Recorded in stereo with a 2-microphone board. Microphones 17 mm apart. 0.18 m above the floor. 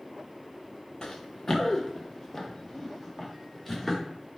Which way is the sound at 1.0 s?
40° left (ahead or behind).